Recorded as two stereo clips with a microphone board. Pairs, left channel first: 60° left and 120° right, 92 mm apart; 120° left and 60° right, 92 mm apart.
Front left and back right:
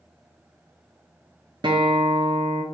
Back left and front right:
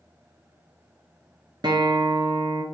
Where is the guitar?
95° right, 1.0 m.